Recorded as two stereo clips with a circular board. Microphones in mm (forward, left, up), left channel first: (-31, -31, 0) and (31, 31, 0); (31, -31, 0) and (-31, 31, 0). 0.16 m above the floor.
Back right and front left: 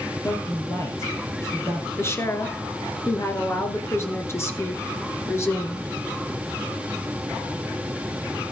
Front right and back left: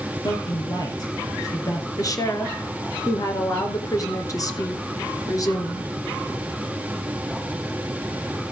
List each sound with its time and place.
0.2 s a man speaking: 80° right, 3.5 m
2.0 s a woman speaking: 80° right, 2.0 m